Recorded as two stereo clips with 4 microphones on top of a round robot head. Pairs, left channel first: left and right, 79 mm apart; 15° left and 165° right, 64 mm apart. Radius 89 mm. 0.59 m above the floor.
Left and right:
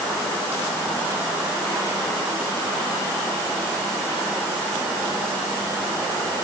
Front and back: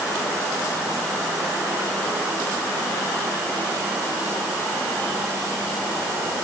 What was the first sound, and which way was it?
Only background noise.